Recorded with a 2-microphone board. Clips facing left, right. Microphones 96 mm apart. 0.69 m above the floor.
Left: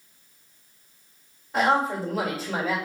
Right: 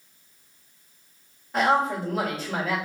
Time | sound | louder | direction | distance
1.5 | a man speaking | even | 5° left (ahead or behind) | 1.8 m